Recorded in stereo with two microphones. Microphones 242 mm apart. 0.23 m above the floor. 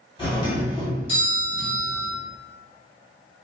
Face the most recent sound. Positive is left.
turn(degrees=20)  # may be behind; listen again after turning